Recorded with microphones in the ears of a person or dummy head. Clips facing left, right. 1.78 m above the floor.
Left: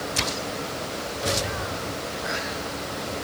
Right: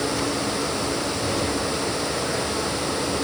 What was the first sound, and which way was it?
Only background noise.